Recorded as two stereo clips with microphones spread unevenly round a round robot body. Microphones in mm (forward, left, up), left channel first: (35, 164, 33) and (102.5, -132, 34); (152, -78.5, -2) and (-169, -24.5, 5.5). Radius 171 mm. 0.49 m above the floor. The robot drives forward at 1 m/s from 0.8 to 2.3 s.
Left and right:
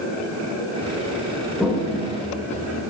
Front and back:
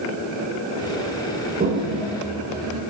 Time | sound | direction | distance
1.6 | a toilet flushing | 165° right | 1.3 m